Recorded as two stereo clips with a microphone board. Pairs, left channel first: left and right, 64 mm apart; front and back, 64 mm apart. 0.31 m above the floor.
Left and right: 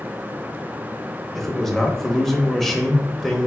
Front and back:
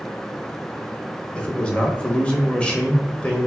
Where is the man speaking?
10° left, 0.9 m.